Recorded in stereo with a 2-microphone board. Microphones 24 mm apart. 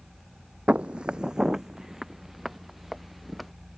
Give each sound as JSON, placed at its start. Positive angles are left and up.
{"t": 0.7, "sound": "footsteps", "side_deg": -65}